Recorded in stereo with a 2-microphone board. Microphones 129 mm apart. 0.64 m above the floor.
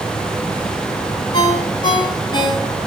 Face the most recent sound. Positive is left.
turn(degrees=35)  # may be behind; listen again after turning